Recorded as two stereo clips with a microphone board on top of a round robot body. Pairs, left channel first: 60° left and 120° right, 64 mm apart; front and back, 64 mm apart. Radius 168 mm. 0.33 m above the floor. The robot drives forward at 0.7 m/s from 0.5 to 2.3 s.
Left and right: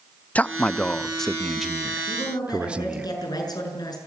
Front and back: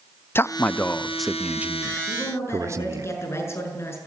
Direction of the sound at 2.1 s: 45° left.